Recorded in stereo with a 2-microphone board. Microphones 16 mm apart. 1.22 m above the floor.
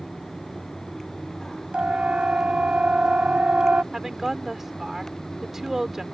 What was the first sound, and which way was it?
A siren, 80° right.